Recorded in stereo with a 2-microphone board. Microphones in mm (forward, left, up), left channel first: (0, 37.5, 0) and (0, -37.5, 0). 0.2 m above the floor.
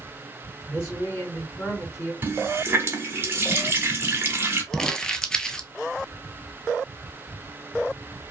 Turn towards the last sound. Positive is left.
turn(degrees=10)  # may be behind; listen again after turning